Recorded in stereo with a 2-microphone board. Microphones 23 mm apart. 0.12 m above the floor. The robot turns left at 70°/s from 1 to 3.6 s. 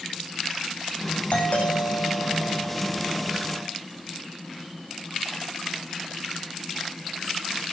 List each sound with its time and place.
1.3 s a doorbell: 115° left, 9 m; by 3.7 s 45° right, 9 m